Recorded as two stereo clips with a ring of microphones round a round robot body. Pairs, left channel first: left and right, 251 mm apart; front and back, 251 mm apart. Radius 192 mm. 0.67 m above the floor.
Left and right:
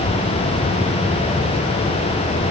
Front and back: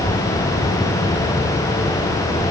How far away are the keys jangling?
No keys jangling in this recording.